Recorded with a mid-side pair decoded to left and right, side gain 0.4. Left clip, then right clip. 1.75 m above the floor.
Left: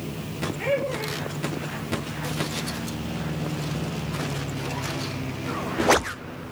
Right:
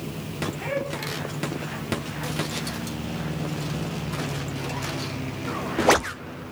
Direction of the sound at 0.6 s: 70° left.